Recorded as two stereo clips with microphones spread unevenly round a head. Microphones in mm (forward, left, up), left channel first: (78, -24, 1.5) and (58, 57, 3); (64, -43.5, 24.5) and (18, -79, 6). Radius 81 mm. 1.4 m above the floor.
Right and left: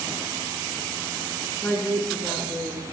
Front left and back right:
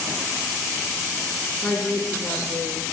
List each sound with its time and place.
1.6 s a woman speaking: 10° right, 4 m; by 2.9 s 20° right, 3.5 m